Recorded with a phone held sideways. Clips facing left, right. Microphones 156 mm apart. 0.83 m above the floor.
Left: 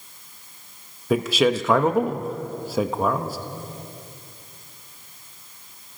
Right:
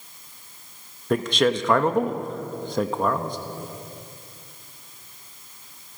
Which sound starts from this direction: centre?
A man speaking, at 1.1 s.